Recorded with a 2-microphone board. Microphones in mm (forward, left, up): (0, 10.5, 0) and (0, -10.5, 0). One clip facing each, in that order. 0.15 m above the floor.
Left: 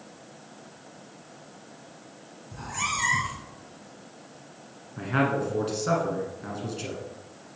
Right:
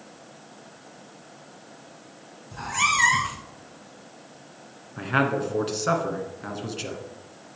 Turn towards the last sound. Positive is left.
turn(degrees=-30)  # may be behind; listen again after turning